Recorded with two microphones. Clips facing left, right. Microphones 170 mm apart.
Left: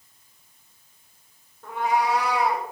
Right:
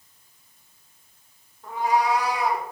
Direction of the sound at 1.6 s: 65° left (ahead or behind).